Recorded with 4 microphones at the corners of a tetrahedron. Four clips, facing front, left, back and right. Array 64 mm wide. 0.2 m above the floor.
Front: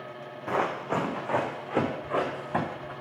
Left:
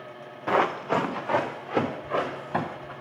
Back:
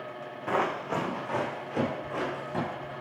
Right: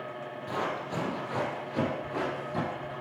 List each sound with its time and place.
0.5 s running footsteps: 95° left, 1.3 m; by 2.9 s 50° left, 4.5 m